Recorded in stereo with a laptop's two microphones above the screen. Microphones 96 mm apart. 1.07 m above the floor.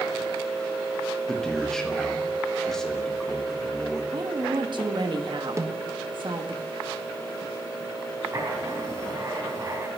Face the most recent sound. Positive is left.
turn(degrees=-35)  # may be behind; listen again after turning